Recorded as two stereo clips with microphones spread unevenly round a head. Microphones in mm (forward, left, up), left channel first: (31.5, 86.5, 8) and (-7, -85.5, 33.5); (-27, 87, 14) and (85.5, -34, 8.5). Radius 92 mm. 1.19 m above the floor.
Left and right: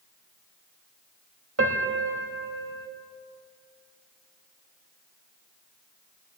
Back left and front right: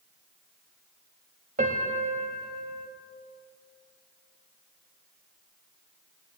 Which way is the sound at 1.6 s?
100° right.